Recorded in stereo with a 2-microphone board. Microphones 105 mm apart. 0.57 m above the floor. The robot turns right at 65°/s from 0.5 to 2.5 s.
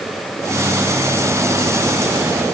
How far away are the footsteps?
I don't hear footsteps.